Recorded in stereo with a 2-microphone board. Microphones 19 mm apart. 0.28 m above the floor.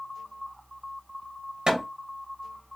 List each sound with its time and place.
1.7 s hammering: 45° right (ahead or behind), 2.0 m